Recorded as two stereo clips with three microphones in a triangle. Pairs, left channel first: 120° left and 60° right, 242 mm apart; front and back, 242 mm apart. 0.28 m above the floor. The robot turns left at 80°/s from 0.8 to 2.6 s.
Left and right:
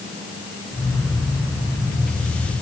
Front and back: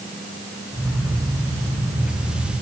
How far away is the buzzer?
No buzzer in this recording.